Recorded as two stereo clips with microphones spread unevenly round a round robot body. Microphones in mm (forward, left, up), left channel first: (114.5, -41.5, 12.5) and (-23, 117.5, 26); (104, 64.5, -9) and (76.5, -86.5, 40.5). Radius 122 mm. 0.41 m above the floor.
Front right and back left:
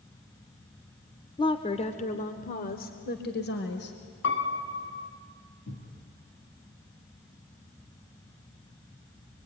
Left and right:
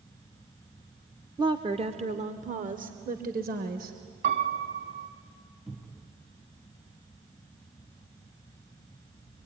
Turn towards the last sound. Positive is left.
turn(degrees=-10)